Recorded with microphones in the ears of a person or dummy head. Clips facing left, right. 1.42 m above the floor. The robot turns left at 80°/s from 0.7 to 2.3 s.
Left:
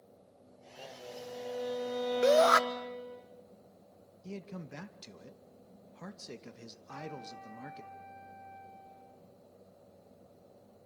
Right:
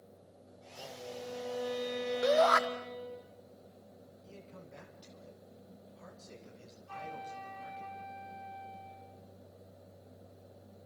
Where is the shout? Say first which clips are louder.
Left 3 dB; 30° left (ahead or behind), 1.1 m; by 2.6 s 40° left (ahead or behind), 1.1 m.